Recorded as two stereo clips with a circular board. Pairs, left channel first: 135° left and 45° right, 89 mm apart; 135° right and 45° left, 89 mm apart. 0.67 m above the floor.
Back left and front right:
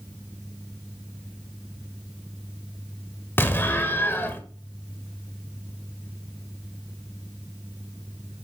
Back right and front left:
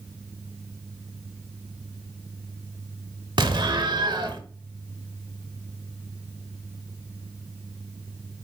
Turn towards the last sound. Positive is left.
turn(degrees=70)